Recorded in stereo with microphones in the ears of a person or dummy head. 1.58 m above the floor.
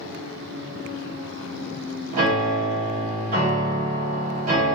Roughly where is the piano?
Right.